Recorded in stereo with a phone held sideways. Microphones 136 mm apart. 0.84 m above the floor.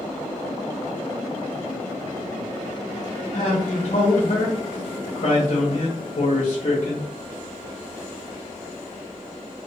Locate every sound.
3.3 s a man speaking: 60° left (ahead or behind), 0.7 m